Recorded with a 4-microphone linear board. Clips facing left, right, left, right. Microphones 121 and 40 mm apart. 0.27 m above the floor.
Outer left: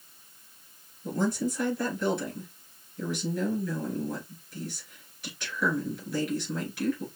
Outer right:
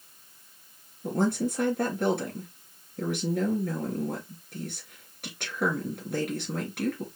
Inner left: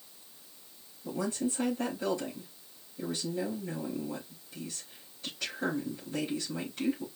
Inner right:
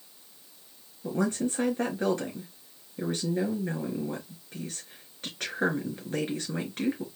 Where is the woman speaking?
60° right (ahead or behind), 3.5 m.